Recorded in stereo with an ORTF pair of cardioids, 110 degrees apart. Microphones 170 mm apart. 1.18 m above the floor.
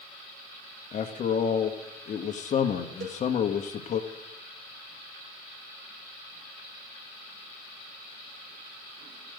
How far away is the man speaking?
About 1.4 m.